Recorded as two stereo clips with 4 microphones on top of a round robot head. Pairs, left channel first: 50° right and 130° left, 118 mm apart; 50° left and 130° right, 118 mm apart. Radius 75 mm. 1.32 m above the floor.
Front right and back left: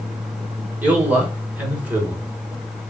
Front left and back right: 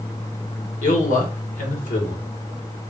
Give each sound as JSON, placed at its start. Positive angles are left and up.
{"t": 0.8, "sound": "a man speaking", "azimuth_deg": 55, "distance_m": 1.4}